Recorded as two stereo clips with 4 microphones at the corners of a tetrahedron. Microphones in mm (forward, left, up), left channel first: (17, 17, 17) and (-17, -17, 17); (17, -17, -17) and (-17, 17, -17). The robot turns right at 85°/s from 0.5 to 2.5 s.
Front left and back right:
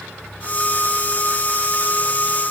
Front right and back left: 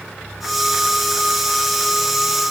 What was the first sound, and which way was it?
Only background noise.